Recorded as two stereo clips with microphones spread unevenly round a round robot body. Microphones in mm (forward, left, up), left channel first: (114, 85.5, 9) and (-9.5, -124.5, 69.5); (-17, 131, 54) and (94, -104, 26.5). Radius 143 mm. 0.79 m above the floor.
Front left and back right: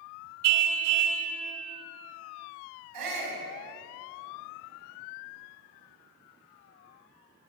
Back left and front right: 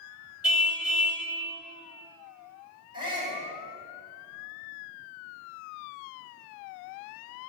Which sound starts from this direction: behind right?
A shout, at 2.9 s.